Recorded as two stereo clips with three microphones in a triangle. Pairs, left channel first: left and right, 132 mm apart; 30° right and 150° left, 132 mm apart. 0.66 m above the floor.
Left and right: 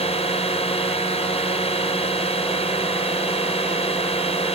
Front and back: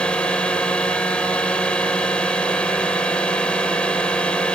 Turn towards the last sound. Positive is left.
turn(degrees=50)